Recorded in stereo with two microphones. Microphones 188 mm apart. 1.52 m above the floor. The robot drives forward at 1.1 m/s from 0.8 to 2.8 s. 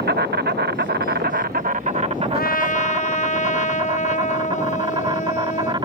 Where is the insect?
60° right (ahead or behind); by 5.8 s 25° right (ahead or behind).